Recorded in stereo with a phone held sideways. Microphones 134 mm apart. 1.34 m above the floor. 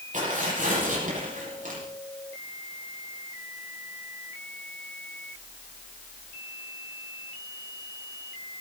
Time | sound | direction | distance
0.1 | tearing paper | 60° right (ahead or behind) | 7.5 m